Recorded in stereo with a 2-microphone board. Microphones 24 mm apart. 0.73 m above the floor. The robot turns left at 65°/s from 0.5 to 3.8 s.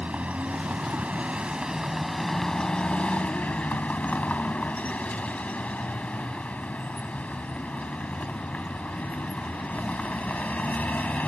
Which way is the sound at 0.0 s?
75° right.